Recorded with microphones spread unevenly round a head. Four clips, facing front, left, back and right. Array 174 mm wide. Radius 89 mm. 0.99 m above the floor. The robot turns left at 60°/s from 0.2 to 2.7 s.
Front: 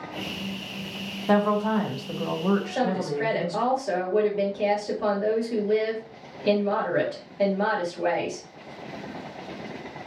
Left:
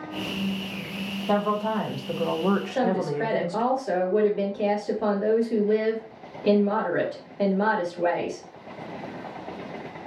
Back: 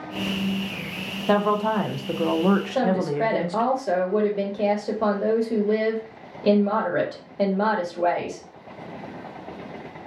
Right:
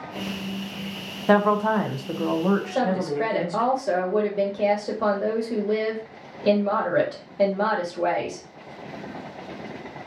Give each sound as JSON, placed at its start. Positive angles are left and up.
{"t": 1.3, "sound": "a woman speaking", "azimuth_deg": -110, "distance_m": 0.5}
{"t": 2.7, "sound": "a woman speaking", "azimuth_deg": -140, "distance_m": 1.3}